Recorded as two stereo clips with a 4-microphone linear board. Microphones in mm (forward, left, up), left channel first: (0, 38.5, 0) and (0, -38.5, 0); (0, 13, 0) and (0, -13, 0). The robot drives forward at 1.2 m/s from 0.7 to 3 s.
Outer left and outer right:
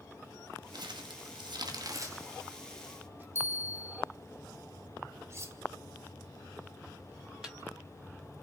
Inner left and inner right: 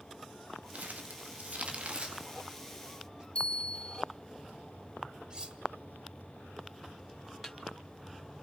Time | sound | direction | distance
0.7 | crumpling | 65° right (ahead or behind) | 1.2 m
3.4 | a bell | 35° left (ahead or behind) | 0.6 m
5.3 | cutlery clinking | 35° right (ahead or behind) | 1.0 m
7.4 | a snare drum | 10° right (ahead or behind) | 1.8 m